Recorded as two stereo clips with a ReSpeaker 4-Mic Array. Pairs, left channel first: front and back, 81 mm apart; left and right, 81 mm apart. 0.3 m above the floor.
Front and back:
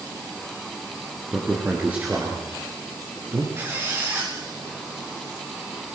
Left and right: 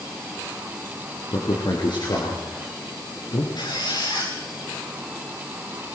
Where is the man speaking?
105° left, 5.5 m; by 3.5 s 120° left, 6.5 m.